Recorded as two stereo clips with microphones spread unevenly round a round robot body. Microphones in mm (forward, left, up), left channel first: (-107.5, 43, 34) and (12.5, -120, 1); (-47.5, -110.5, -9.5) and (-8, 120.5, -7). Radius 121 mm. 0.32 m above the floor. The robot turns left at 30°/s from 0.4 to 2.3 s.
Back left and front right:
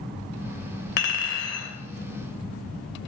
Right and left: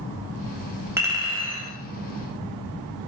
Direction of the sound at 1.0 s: 160° left.